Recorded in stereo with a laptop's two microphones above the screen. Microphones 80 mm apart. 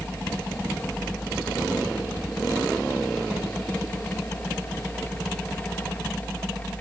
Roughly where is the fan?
Centre.